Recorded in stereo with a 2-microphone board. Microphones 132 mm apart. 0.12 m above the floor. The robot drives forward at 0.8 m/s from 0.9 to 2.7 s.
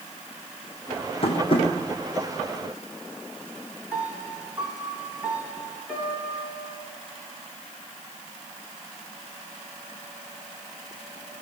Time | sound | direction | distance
1.2 | tapping | 45° left (ahead or behind) | 6 m
3.9 | a piano | 10° right (ahead or behind) | 8.5 m